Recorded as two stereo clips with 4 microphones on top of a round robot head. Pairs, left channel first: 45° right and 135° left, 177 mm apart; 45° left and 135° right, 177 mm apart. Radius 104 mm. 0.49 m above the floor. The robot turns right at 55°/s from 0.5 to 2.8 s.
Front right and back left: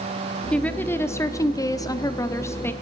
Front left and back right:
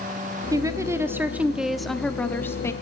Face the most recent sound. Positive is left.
turn(degrees=10)